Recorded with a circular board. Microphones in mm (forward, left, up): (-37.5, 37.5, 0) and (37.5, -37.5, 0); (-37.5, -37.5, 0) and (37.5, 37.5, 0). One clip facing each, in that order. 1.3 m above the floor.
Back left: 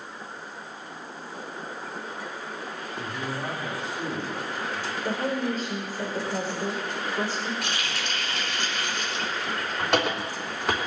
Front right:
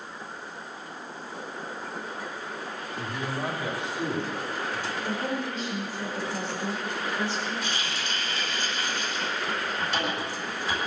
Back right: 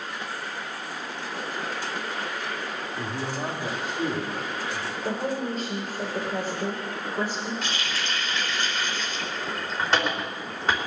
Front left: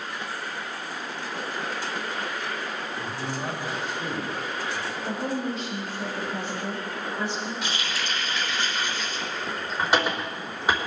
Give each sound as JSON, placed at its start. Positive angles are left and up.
{"t": 3.0, "sound": "a man speaking", "azimuth_deg": -125, "distance_m": 3.5}
{"t": 5.0, "sound": "a woman speaking", "azimuth_deg": -175, "distance_m": 4.5}
{"t": 7.6, "sound": "a running tap", "azimuth_deg": 125, "distance_m": 3.5}